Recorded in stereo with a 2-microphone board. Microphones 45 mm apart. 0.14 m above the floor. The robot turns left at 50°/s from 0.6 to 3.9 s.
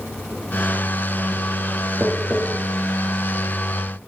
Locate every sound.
2.0 s tapping: 20° right (ahead or behind), 0.9 m; by 2.4 s 35° right (ahead or behind), 0.9 m